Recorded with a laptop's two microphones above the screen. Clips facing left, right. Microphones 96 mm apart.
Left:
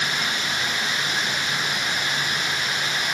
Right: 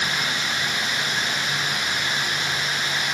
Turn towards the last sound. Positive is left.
No sound to turn to.